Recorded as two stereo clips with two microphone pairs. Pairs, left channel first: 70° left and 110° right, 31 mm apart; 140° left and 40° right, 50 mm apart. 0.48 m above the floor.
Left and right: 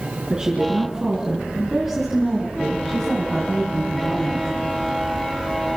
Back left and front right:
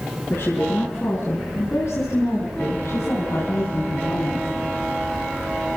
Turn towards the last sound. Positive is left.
turn(degrees=135)